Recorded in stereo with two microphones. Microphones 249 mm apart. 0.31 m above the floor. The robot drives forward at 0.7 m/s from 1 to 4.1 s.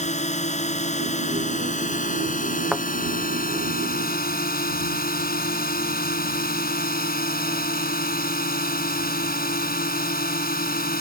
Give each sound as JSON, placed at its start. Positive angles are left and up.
{"t": 0.0, "sound": "a drone", "side_deg": 30}
{"t": 2.7, "sound": "a thud", "side_deg": 0}